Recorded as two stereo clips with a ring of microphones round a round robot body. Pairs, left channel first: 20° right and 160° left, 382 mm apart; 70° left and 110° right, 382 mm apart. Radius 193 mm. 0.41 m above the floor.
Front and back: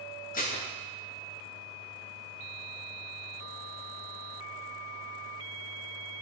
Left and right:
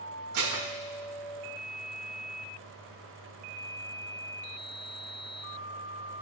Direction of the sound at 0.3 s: 85° right.